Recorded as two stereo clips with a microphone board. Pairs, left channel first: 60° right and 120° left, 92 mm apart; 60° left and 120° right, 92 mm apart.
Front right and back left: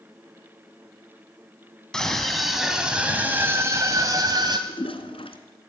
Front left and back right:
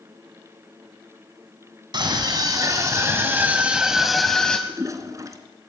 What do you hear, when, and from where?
1.9 s a scream: 140° right, 1.7 m; by 4.6 s 135° left, 1.4 m
4.7 s a toilet flushing: 65° right, 1.9 m